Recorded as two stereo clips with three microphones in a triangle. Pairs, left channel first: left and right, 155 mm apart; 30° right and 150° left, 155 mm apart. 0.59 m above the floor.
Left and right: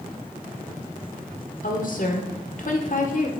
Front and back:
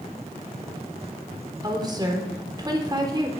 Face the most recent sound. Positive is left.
turn(degrees=90)